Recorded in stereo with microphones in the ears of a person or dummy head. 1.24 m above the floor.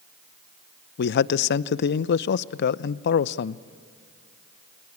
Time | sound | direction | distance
1.0 | a man speaking | 55° left (ahead or behind) | 0.6 m